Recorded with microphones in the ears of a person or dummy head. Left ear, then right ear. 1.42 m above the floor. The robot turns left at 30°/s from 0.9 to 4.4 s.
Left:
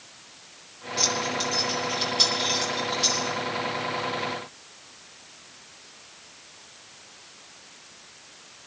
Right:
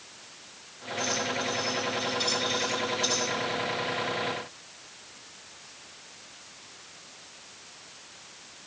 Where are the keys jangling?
80° left, 4 m; by 3.2 s 25° left (ahead or behind), 4 m.